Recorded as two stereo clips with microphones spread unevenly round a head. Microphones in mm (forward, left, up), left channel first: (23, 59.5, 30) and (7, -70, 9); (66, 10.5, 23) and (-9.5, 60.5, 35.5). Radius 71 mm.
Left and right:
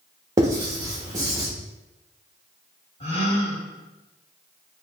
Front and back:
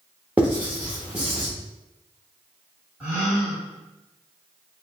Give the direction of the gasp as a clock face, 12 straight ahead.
9 o'clock.